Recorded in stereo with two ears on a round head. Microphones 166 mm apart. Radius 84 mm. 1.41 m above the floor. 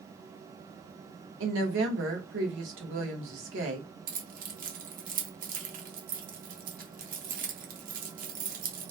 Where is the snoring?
No snoring in this recording.